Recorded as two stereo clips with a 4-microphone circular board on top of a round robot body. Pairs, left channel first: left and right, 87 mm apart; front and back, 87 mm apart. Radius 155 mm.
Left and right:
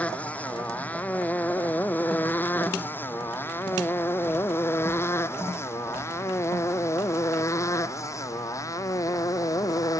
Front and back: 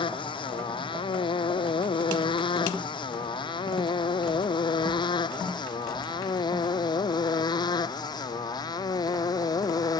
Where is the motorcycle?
15° left; by 10.0 s 40° left.